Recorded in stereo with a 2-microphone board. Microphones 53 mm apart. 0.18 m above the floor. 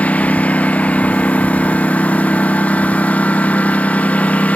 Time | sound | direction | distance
0.0 | a lawn mower | 30° left (ahead or behind) | ?